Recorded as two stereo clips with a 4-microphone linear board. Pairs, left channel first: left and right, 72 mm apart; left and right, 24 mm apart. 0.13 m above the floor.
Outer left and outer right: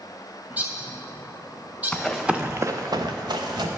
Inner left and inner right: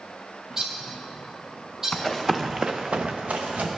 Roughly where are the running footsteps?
Centre.